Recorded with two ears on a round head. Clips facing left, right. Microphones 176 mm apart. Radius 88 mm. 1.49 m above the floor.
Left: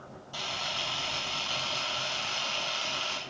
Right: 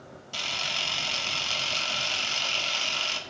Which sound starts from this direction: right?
A camera shutter, at 0.3 s.